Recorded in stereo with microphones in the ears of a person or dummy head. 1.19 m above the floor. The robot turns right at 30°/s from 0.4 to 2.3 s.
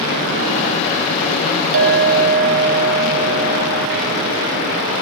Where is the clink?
65° right (ahead or behind), 1.1 m; by 4.9 s 55° right (ahead or behind), 1.1 m.